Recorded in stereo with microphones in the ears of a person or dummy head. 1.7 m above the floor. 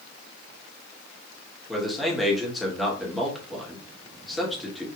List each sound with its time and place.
1.7 s a man speaking: centre (ahead or behind), 3 m